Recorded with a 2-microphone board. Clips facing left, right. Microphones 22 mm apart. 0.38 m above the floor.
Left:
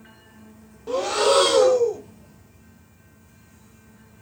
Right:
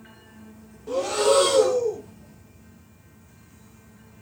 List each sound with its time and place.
0.9 s breathing: 20° left (ahead or behind), 0.5 m